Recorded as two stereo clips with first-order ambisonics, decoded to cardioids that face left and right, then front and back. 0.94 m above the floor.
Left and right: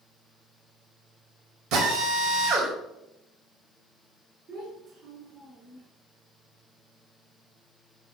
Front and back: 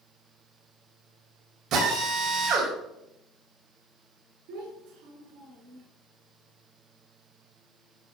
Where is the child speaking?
145° right, 7 m.